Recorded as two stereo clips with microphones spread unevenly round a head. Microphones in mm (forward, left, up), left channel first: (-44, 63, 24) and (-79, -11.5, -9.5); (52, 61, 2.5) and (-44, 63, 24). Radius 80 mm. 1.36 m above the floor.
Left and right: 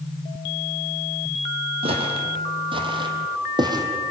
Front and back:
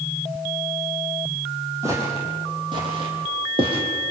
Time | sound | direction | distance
1.8 | footsteps | 120° right | 3 m